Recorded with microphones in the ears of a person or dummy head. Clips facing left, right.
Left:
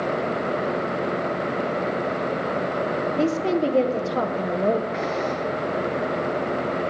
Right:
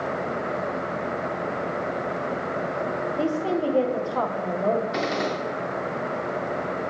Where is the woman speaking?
25° left (ahead or behind), 1.3 m.